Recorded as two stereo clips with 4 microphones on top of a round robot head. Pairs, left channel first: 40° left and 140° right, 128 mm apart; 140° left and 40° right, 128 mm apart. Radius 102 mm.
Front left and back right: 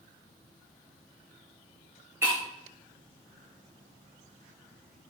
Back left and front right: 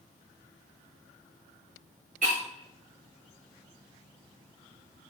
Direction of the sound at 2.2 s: 70° right.